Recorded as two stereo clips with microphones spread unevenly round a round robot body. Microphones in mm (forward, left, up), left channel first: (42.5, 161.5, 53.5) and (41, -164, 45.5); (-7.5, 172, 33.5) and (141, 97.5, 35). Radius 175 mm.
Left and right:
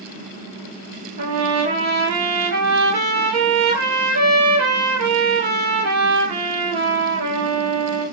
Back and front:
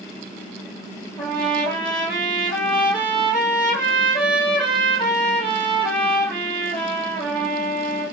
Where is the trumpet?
140° right, 2 m.